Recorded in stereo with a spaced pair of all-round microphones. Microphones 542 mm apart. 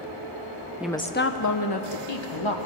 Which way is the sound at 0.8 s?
5° right (ahead or behind).